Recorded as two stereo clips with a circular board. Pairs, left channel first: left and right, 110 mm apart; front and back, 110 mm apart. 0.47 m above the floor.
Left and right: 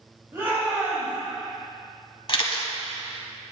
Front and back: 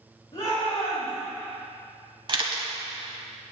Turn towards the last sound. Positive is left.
turn(degrees=135)